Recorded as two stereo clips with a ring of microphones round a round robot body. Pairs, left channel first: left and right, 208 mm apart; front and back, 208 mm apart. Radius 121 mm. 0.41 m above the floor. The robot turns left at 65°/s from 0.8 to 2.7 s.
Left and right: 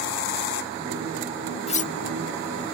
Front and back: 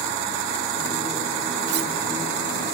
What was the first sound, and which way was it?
Cutlery clinking, 150° left.